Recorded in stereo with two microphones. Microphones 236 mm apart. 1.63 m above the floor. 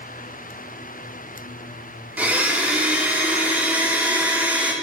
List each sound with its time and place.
2.2 s a blender: 10° right (ahead or behind), 1.4 m